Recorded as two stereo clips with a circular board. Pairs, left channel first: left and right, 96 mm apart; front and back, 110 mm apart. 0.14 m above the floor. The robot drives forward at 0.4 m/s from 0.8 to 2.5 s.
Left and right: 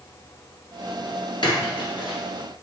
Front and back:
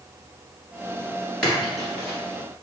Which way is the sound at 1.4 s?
80° left.